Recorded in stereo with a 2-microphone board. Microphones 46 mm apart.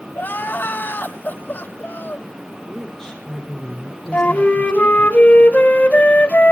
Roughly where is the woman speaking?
Centre.